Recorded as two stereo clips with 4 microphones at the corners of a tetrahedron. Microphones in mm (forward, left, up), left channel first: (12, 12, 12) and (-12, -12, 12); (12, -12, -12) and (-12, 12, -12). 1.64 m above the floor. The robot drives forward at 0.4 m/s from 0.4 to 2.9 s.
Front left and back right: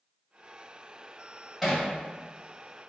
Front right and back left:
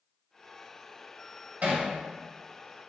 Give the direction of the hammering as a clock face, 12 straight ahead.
7 o'clock.